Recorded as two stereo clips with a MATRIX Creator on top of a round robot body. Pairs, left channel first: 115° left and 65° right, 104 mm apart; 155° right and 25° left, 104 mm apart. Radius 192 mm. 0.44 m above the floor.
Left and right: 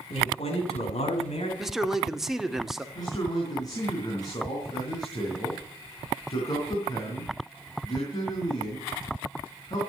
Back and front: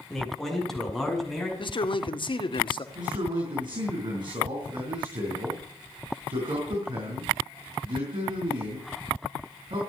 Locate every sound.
0.1 s a man speaking: 115° left, 6.5 m
1.6 s a man speaking: 155° right, 2 m
3.0 s a man speaking: 60° left, 5 m